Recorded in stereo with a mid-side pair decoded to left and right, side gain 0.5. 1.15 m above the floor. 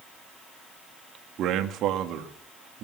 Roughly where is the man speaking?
Ahead right.